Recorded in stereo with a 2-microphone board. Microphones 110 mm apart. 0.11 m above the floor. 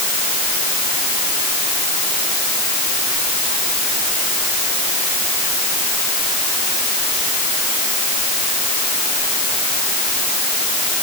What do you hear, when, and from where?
Only background noise.